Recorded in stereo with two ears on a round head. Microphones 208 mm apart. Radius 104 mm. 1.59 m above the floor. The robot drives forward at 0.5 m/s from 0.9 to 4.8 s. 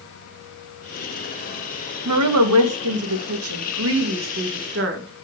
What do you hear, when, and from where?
2.0 s a woman speaking: 85° right, 2.5 m; by 5.2 s 55° right (ahead or behind), 3 m